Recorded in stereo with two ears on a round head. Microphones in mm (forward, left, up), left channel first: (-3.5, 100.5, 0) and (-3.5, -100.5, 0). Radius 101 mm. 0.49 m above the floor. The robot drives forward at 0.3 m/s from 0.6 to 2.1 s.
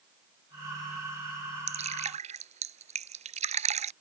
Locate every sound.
1.7 s dripping: 30° right (ahead or behind)